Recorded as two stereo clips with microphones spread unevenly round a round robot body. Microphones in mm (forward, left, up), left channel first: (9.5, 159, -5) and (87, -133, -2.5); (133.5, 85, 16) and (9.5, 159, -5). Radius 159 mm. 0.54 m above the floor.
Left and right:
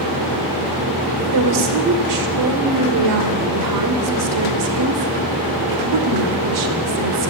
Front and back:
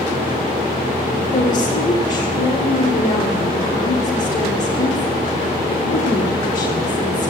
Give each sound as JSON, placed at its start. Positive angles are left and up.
{"t": 1.2, "sound": "a woman speaking", "azimuth_deg": -80, "distance_m": 2.5}